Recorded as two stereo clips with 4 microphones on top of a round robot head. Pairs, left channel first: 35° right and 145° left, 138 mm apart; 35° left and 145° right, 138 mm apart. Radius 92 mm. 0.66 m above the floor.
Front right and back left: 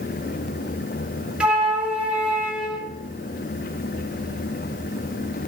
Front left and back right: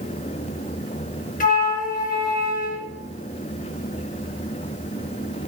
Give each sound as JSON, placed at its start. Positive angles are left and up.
{"t": 1.4, "sound": "a flute", "azimuth_deg": 65, "distance_m": 3.0}